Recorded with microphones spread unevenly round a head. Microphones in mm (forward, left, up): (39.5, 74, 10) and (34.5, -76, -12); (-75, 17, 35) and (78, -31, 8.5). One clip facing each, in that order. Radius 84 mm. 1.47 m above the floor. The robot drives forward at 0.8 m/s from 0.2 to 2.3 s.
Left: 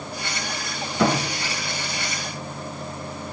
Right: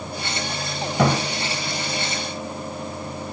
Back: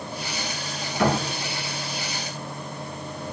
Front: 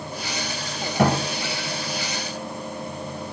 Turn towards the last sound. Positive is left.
turn(degrees=-100)